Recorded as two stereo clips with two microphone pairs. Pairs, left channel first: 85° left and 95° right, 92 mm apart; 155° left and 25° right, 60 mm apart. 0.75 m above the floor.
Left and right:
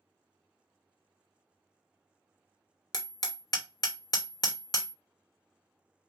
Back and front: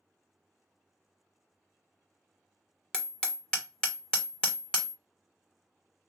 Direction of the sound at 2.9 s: 85° left.